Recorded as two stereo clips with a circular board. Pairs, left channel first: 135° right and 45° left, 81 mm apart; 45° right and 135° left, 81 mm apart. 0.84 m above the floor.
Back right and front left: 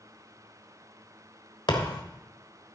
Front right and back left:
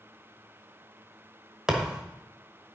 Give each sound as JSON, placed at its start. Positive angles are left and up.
{"t": 1.7, "sound": "a thud", "azimuth_deg": -145, "distance_m": 1.3}